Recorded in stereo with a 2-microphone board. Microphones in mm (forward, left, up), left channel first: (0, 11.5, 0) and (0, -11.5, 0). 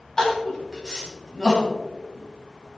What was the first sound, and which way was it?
Crying, 30° left (ahead or behind).